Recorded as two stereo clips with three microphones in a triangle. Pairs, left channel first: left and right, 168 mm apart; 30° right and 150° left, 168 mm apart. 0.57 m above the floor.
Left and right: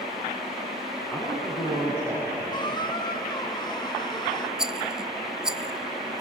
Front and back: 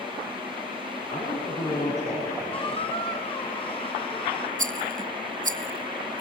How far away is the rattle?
About 0.5 m.